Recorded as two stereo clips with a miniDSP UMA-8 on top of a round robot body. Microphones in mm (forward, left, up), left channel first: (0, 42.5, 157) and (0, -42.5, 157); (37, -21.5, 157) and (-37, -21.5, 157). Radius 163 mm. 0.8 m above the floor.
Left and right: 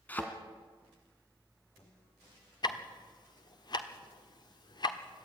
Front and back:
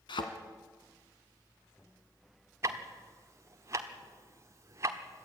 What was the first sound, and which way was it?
A thud, 15° left.